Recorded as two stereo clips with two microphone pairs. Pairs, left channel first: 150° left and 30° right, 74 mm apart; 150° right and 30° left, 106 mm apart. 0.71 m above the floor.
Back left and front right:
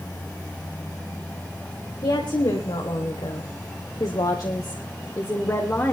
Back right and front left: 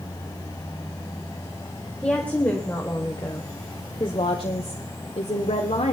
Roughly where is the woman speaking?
Behind left.